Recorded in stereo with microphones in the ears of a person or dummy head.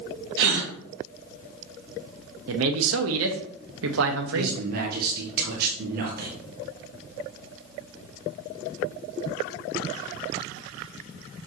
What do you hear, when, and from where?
0.4 s a gasp: 60° right (ahead or behind), 2.0 m
2.5 s a man speaking: 80° right, 1.2 m
4.3 s a man speaking: 55° right (ahead or behind), 1.4 m